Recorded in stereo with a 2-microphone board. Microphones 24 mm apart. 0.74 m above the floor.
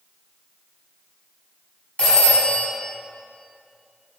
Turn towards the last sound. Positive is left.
turn(degrees=50)  # may be behind; listen again after turning